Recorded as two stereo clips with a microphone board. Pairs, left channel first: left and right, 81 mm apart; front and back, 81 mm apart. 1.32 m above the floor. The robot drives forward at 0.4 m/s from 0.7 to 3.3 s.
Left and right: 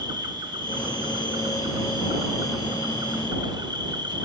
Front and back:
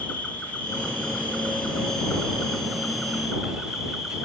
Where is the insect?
75° right, 3 m; by 4.2 s 95° right, 3 m.